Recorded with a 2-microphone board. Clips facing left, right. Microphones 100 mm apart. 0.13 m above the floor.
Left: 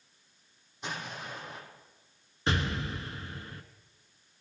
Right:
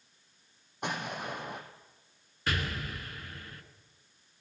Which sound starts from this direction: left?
An explosion, at 2.5 s.